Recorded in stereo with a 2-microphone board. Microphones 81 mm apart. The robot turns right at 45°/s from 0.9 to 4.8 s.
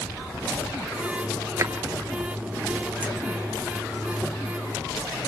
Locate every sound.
1.6 s a drawer: 40° right (ahead or behind), 1.8 m; by 1.7 s 35° right (ahead or behind), 1.8 m